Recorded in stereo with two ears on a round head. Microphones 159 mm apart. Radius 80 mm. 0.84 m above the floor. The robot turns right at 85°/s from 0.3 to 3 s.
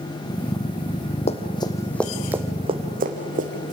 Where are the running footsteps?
40° left (ahead or behind), 1.6 m; by 3.7 s 45° right (ahead or behind), 3 m.